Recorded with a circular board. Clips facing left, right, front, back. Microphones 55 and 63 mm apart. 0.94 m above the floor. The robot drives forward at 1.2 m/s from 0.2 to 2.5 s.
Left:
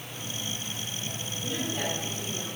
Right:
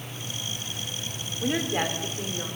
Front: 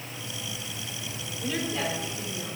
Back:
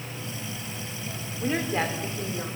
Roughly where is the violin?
I don't hear a violin.